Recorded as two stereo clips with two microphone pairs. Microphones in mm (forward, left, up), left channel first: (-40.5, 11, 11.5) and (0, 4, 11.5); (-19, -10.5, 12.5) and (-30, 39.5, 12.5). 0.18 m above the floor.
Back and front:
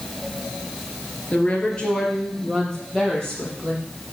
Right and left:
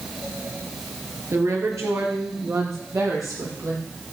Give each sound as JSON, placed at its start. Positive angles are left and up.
{"t": 1.3, "sound": "a woman speaking", "azimuth_deg": 110, "distance_m": 3.0}